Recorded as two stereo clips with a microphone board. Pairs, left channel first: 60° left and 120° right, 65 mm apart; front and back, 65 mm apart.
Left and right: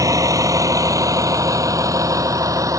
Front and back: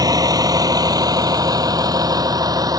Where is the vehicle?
155° right.